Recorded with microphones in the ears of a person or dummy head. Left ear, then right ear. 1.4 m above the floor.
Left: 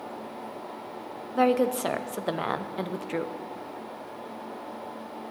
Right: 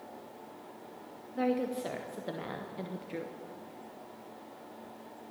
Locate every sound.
1.4 s a woman speaking: 30° left (ahead or behind), 0.6 m